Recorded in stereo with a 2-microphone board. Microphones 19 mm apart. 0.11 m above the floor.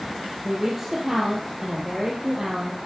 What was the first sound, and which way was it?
A woman speaking, 15° right (ahead or behind).